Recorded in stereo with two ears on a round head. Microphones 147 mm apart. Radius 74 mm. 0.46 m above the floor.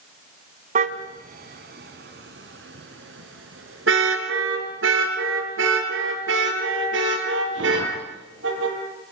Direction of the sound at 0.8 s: 45° right (ahead or behind).